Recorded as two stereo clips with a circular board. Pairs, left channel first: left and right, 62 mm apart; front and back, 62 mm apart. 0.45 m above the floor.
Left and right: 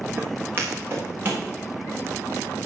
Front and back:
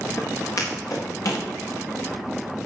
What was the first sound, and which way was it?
Footsteps, 30° right.